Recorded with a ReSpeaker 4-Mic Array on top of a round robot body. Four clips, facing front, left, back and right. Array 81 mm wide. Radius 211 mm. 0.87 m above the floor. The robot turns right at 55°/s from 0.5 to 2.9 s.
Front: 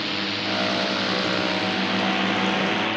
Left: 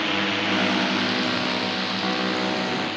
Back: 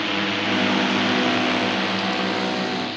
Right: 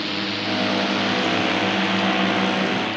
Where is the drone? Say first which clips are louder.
Left 2 dB, back 4 dB; 130° left; by 3.0 s 20° right.